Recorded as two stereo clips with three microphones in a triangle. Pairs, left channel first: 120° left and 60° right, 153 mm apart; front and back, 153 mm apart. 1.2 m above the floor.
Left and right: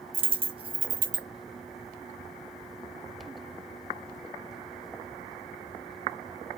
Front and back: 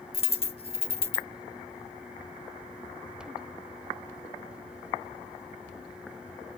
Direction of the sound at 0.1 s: 25° right.